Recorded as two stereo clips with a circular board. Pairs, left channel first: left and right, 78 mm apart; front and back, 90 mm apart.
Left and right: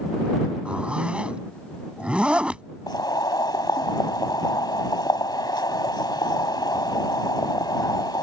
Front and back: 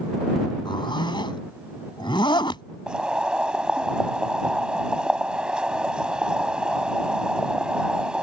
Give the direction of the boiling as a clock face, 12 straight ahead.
9 o'clock.